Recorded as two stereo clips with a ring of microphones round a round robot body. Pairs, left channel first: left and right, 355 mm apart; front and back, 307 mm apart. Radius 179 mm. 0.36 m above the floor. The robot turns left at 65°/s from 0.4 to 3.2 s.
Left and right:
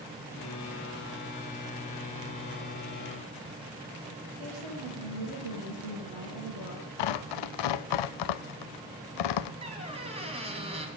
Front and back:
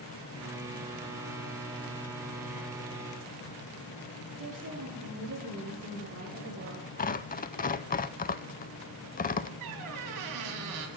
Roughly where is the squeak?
Behind.